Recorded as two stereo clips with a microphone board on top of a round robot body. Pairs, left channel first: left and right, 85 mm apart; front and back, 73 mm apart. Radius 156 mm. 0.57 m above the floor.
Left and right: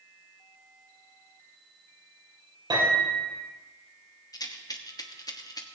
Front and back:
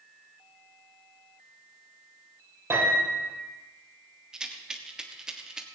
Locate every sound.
2.7 s a piano: 125° right, 7.5 m
4.3 s a rattle: 100° left, 1.7 m